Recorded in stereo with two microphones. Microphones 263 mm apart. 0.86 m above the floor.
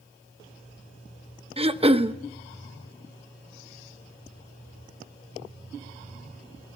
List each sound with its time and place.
1.6 s throat clearing: 20° right (ahead or behind), 0.8 m